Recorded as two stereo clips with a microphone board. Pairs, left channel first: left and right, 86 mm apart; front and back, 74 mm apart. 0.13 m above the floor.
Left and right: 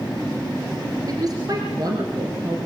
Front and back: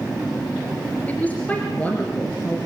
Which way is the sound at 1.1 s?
65° right.